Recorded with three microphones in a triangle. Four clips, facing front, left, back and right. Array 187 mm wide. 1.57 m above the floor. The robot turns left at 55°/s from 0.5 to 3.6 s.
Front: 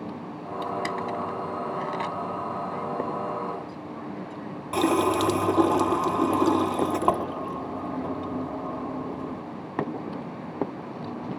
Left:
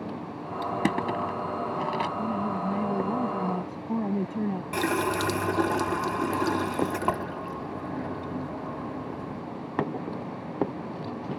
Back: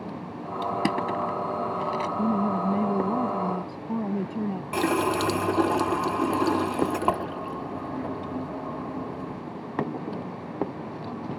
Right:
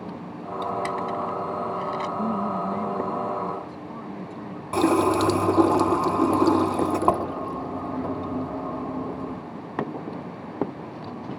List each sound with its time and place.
0.6 s crushing: 140° left; by 2.1 s 60° left
2.2 s a woman speaking: 150° right; by 4.6 s 130° left
4.7 s a running tap: 85° right